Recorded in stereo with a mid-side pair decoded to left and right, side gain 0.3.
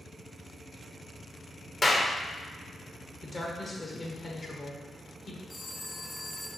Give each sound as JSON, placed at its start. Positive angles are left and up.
{"t": 1.8, "sound": "a clap", "azimuth_deg": 35, "distance_m": 1.0}
{"t": 3.2, "sound": "a woman speaking", "azimuth_deg": 45, "distance_m": 1.4}
{"t": 5.5, "sound": "a phone ringing", "azimuth_deg": 50, "distance_m": 1.9}